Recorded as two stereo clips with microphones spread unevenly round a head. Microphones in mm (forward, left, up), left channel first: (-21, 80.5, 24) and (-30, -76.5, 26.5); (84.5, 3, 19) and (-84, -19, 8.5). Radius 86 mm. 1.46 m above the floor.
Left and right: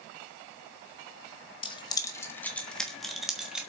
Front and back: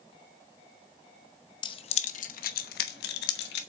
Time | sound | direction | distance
1.6 | keys jangling | 45° left | 0.8 m